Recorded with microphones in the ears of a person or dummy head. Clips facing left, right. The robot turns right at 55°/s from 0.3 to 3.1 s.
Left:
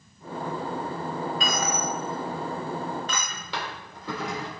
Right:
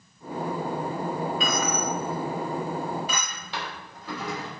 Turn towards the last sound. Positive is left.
turn(degrees=70)  # may be behind; listen again after turning